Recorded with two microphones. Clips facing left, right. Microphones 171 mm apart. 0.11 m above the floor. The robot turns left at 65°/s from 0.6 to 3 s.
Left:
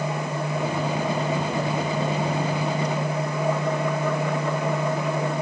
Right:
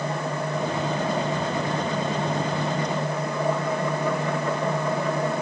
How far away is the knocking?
No knocking in this recording.